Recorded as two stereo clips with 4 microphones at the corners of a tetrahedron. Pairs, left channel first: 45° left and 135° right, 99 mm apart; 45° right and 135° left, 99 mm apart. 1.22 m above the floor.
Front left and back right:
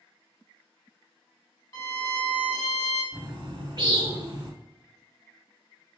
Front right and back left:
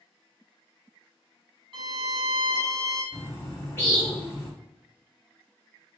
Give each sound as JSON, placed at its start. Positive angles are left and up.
{"t": 1.7, "sound": "a violin", "azimuth_deg": 100, "distance_m": 2.5}
{"t": 3.1, "sound": "a bird", "azimuth_deg": -105, "distance_m": 1.9}